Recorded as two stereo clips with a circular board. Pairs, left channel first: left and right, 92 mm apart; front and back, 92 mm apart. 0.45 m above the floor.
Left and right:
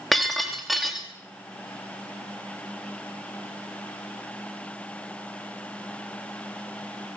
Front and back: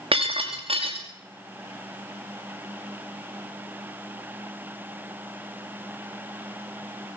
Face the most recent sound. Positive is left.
turn(degrees=180)